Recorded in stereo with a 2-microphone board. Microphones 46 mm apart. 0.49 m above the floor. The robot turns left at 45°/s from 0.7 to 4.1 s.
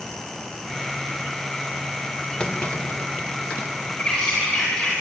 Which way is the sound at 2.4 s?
25° left (ahead or behind).